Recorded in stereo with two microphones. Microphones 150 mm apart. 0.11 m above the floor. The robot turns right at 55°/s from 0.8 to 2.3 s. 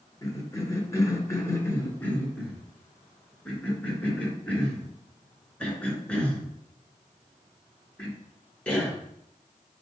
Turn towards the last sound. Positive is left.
turn(degrees=10)  # may be behind; listen again after turning